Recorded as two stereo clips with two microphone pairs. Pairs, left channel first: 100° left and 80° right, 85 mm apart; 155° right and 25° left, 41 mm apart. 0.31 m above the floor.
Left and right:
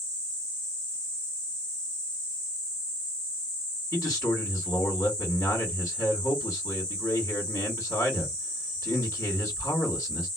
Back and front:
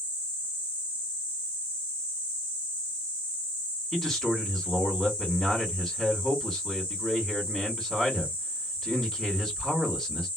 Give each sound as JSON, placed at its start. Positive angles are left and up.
{"t": 3.9, "sound": "a man speaking", "azimuth_deg": 120, "distance_m": 2.0}